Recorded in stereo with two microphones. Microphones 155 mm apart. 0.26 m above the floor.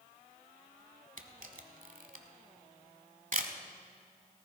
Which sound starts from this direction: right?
A camera shutter, at 1.2 s.